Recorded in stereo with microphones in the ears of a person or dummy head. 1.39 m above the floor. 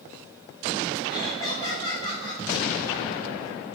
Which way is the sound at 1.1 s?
20° left (ahead or behind).